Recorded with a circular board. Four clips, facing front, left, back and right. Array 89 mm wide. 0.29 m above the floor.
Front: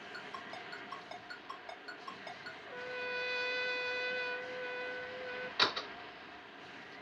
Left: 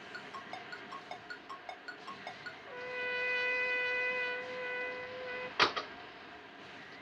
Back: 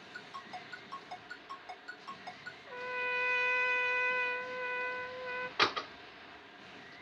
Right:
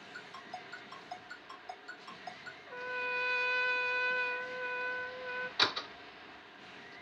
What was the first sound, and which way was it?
A ringtone, 70° left.